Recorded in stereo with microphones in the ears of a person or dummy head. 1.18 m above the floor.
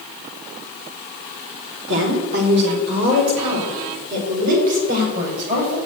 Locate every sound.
1.9 s a woman speaking: 65° right (ahead or behind), 3 m; by 5.8 s 40° right (ahead or behind), 5.5 m